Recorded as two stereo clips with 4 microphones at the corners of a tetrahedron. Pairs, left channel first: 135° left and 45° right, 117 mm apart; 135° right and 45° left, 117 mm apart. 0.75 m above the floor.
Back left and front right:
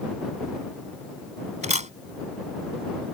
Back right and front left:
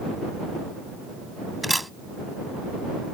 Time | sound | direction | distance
1.6 | a camera shutter | 45° right | ?